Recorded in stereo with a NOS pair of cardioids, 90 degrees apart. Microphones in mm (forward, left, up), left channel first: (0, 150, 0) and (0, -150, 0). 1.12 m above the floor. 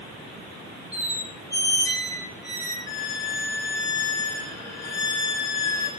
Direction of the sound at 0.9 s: 10° left.